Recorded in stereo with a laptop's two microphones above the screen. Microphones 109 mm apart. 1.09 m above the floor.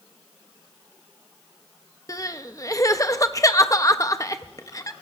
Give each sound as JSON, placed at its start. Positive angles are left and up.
{"t": 2.1, "sound": "crying", "side_deg": 30, "distance_m": 0.7}